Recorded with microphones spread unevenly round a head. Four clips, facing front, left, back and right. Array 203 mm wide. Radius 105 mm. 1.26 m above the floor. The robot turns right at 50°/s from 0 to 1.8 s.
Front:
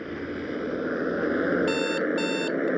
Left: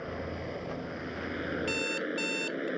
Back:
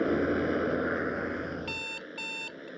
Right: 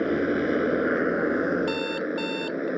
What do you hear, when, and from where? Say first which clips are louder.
0.0 s a motorcycle: right 14 dB, back 6 dB; 115° right; by 2.8 s 25° right
1.6 s an alarm clock: right 7 dB, front 16 dB; 55° right; by 2.7 s 45° right